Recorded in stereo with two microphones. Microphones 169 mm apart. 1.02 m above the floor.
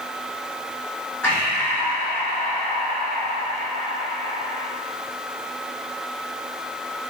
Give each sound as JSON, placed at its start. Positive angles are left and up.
{"t": 1.2, "sound": "breathing", "side_deg": 10, "distance_m": 1.0}